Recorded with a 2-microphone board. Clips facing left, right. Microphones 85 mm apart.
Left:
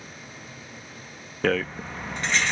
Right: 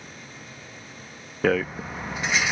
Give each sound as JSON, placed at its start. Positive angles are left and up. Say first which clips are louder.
{"t": 1.4, "sound": "a rattle", "louder": "right 2 dB", "side_deg": -5}